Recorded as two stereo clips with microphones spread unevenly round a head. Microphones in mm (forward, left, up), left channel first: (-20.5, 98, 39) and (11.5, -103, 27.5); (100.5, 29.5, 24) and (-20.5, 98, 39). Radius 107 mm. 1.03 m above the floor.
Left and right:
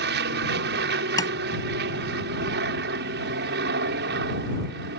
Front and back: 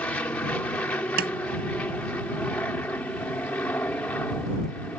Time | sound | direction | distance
0.0 | an aircraft | 110° right | ?
1.2 | tapping | 170° left | ?